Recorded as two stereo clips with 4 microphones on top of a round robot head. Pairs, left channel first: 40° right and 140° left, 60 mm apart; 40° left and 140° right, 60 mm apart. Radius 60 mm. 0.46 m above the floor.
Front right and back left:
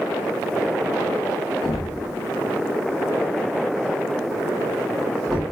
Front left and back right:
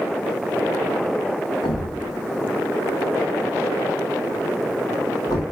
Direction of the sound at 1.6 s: 45° left.